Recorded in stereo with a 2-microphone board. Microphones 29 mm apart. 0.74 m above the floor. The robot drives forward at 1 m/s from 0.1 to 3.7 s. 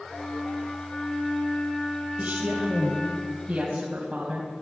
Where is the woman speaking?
55° right (ahead or behind), 3 m; by 4.5 s 35° right (ahead or behind), 4 m.